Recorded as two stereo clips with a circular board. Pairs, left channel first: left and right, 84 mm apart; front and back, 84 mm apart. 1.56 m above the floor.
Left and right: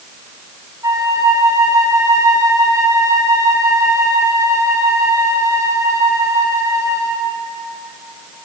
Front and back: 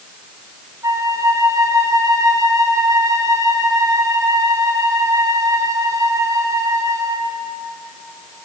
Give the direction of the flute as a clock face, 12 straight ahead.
5 o'clock.